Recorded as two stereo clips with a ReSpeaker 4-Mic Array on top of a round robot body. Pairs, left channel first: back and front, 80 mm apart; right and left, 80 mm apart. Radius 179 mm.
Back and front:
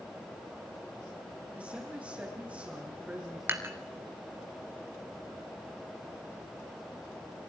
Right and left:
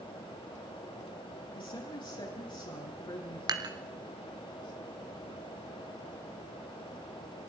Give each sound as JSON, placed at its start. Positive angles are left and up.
{"t": 1.6, "sound": "a woman speaking", "azimuth_deg": -75, "distance_m": 8.0}
{"t": 3.5, "sound": "dishes clattering", "azimuth_deg": 60, "distance_m": 2.0}